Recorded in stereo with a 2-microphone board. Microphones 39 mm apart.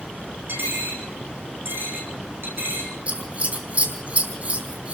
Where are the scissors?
35° right (ahead or behind), 4 m.